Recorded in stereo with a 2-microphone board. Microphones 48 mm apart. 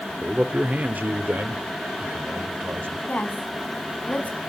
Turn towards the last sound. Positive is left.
turn(degrees=35)  # may be behind; listen again after turning